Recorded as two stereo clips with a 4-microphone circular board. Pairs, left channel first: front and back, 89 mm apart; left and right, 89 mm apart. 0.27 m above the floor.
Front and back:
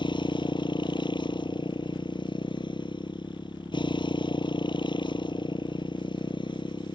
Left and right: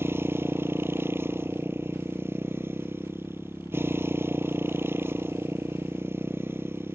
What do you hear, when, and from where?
0.0 s a motorcycle: 25° right